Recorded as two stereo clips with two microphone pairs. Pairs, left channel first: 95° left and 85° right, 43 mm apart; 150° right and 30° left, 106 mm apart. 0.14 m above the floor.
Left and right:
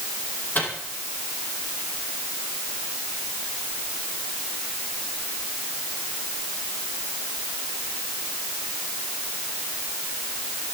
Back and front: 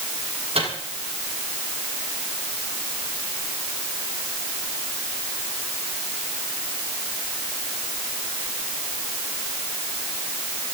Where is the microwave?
50° left, 5 m.